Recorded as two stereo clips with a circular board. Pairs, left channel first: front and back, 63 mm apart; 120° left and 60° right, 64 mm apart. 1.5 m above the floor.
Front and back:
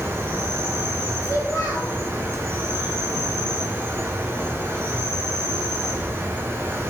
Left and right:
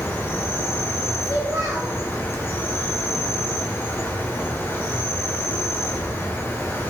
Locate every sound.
0.0 s an insect: 150° left, 1.2 m
1.2 s a child speaking: 25° right, 2.5 m